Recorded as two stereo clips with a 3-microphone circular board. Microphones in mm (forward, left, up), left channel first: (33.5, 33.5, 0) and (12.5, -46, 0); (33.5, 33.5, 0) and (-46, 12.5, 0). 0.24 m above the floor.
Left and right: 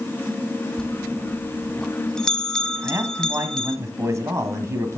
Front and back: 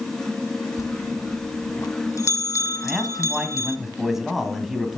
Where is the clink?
No clink in this recording.